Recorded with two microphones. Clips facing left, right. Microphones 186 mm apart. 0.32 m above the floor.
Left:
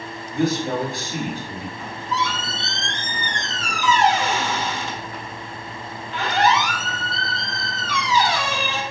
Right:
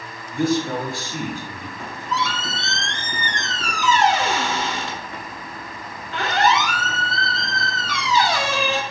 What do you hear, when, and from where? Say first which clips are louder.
0.3 s a man speaking: even; 20° left (ahead or behind), 1.4 m
1.8 s a squeak: right 1 dB; 70° right (ahead or behind), 0.5 m